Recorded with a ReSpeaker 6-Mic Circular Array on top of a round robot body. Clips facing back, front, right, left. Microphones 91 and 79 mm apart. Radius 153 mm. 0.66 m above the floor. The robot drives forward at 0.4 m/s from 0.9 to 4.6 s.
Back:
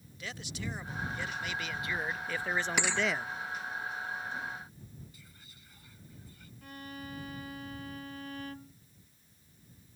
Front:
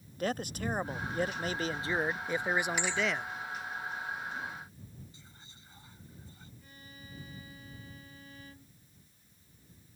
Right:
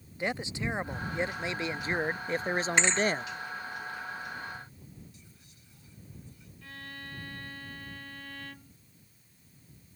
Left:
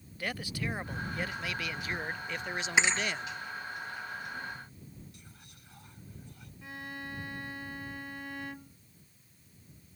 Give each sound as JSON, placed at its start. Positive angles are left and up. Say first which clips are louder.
{"t": 0.2, "sound": "a man speaking", "louder": "front 8 dB, right 4 dB", "azimuth_deg": -30}
{"t": 2.8, "sound": "a thud", "louder": "back 1 dB, even", "azimuth_deg": 175}
{"t": 5.1, "sound": "whispering", "louder": "front 1 dB, left 2 dB", "azimuth_deg": 65}
{"t": 6.6, "sound": "a violin", "louder": "back 13 dB, left 3 dB", "azimuth_deg": 160}